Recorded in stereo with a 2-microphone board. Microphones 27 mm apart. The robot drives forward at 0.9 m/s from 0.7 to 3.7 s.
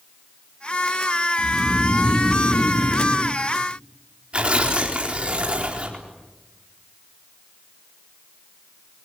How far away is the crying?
No crying in this recording.